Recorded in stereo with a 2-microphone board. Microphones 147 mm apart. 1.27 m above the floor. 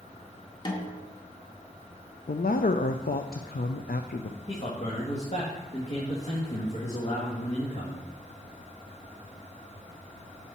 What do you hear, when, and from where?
0.7 s a snare drum: 30° left (ahead or behind), 1.7 m
2.3 s a man speaking: 85° left, 0.6 m
4.5 s a man speaking: 50° left (ahead or behind), 1.8 m